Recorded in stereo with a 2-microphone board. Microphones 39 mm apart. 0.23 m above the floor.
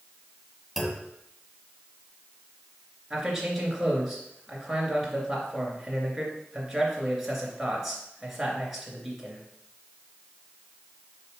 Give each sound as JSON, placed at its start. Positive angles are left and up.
{"t": 0.8, "sound": "a clunk", "side_deg": 0, "distance_m": 1.6}
{"t": 3.1, "sound": "a man speaking", "side_deg": -5, "distance_m": 3.0}